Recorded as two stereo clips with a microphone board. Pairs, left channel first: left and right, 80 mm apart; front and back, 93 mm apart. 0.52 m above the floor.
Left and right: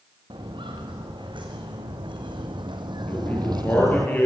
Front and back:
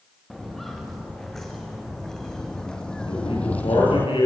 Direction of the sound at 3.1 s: 20° left.